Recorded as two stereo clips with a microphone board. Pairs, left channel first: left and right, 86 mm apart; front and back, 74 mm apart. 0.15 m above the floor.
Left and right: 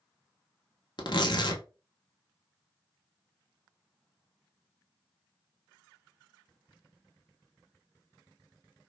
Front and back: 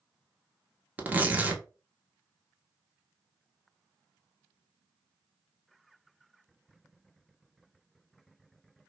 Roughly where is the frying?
I don't hear frying.